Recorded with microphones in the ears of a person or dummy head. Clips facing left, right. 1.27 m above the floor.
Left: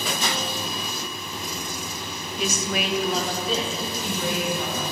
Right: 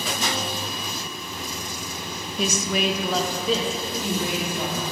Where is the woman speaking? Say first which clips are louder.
Right 3 dB; 70° right (ahead or behind), 0.8 m; by 4.8 s 45° right (ahead or behind), 3 m.